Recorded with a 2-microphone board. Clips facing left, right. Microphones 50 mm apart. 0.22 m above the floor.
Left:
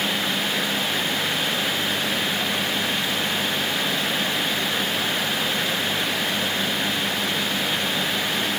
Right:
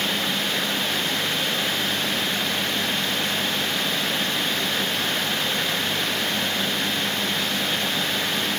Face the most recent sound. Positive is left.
No sound to turn to.